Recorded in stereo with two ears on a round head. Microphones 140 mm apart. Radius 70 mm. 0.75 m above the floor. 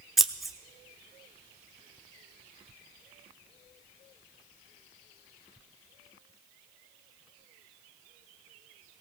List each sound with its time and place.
0.2 s scissors: centre (ahead or behind), 0.6 m